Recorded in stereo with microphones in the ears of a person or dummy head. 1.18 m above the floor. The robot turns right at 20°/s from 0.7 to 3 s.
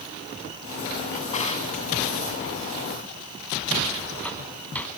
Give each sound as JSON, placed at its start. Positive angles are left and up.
{"t": 1.1, "sound": "a drawer", "side_deg": 45, "distance_m": 2.0}